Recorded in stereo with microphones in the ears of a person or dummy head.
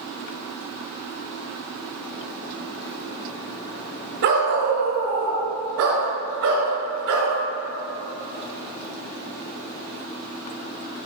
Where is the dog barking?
45° right (ahead or behind), 1.1 m; by 7.3 s 75° right (ahead or behind), 2.5 m.